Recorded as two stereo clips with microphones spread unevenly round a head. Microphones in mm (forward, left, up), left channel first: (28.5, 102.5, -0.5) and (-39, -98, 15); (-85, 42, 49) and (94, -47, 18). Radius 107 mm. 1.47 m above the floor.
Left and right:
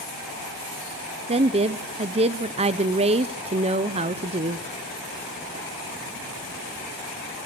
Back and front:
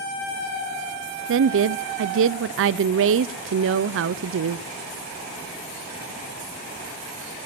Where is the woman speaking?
45° right, 0.6 m.